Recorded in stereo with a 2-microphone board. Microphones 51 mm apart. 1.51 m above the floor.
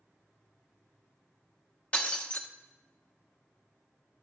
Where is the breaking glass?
25° left (ahead or behind), 1.0 m.